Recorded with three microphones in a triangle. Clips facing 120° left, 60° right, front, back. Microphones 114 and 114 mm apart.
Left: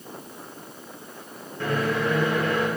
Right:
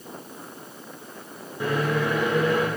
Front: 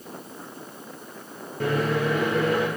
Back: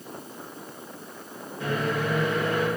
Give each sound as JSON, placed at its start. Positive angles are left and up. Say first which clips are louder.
{"t": 1.6, "sound": "a microwave", "louder": "even, front 4 dB", "azimuth_deg": 15, "distance_m": 1.6}